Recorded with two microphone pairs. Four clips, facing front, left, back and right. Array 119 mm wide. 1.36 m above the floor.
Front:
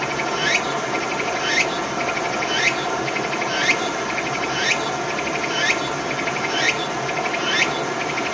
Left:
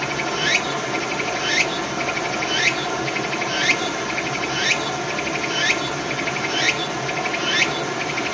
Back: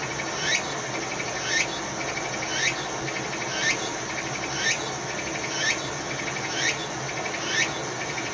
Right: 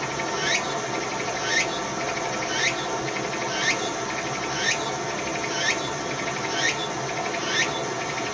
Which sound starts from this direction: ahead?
Running water, at 0.0 s.